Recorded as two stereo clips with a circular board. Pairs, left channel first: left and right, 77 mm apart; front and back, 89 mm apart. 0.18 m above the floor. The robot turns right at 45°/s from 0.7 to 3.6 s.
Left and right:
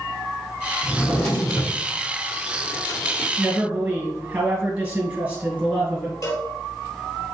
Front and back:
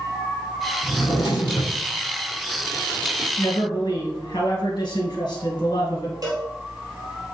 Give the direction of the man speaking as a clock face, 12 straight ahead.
1 o'clock.